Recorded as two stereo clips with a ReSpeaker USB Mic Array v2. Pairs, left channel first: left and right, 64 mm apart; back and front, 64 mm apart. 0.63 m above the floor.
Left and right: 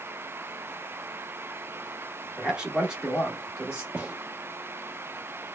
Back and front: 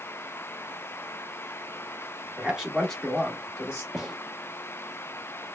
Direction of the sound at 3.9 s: 75° right.